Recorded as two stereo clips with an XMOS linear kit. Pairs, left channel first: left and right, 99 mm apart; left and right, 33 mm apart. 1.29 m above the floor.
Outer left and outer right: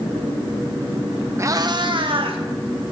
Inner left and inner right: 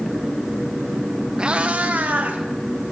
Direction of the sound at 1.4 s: 30° right (ahead or behind).